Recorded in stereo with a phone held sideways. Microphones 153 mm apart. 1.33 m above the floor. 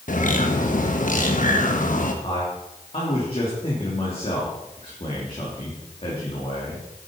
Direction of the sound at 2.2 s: 40° left (ahead or behind).